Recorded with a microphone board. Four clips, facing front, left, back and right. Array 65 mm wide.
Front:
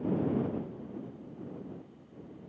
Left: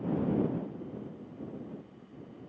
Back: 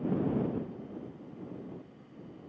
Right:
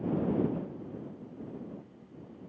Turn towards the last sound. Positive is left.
No sound to turn to.